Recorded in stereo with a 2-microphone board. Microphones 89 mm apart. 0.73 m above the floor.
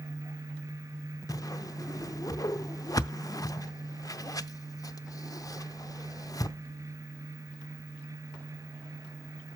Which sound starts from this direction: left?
A whoosh, at 1.3 s.